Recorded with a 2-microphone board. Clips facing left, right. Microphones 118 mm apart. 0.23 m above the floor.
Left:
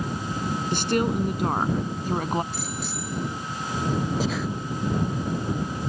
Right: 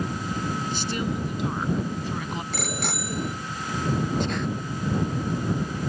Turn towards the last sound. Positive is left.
turn(degrees=5)  # may be behind; listen again after turning